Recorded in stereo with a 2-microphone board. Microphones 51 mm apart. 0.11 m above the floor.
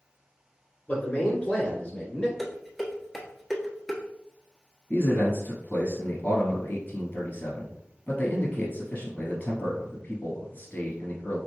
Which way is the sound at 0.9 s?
30° left (ahead or behind).